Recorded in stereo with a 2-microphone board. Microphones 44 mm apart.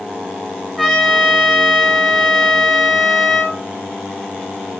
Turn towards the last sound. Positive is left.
turn(degrees=0)  # may be behind; listen again after turning